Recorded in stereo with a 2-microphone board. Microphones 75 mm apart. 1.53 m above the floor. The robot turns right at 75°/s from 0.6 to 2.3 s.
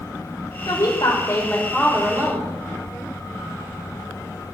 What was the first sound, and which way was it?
A woman speaking, 90° left.